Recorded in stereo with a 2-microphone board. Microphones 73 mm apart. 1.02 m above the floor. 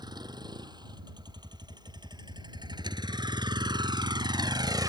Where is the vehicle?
75° right (ahead or behind); by 4.9 s 65° right (ahead or behind).